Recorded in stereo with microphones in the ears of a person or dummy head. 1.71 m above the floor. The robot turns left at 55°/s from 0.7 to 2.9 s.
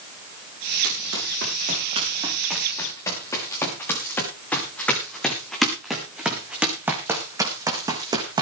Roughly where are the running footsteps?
Right.